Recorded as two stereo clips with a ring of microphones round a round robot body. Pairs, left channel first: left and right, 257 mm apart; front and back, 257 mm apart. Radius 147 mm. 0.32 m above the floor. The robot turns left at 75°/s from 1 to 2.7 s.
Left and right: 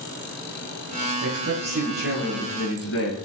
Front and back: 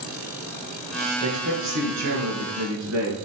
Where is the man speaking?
110° right, 4 m; by 3.1 s 135° left, 4 m.